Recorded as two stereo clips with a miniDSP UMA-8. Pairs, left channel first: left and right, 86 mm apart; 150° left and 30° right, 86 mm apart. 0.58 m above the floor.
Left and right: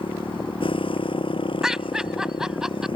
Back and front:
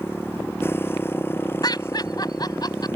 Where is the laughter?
175° right.